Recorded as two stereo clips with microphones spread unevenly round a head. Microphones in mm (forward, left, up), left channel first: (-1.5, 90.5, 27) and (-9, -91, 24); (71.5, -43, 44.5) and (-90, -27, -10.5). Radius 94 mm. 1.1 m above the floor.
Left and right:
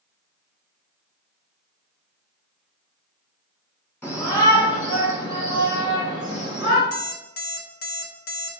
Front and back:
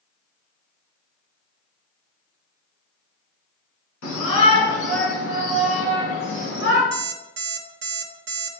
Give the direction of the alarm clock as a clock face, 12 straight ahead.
8 o'clock.